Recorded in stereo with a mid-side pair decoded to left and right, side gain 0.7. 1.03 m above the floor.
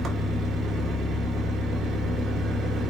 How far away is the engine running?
About 1.1 m.